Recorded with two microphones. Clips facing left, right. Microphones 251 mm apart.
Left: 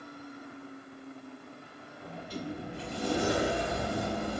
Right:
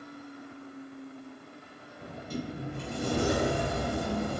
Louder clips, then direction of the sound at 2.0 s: Right 2 dB; 50° right (ahead or behind).